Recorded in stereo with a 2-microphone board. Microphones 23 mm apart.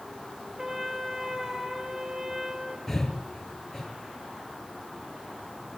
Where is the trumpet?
25° right (ahead or behind), 2.5 m.